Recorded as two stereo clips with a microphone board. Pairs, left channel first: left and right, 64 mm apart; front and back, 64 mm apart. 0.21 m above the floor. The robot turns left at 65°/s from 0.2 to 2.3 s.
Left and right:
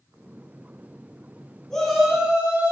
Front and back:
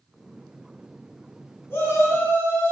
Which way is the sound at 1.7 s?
15° left.